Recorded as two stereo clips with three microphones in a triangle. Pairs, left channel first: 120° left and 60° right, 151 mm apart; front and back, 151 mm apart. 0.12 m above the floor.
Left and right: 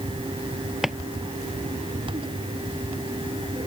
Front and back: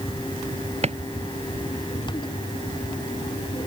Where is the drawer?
145° right.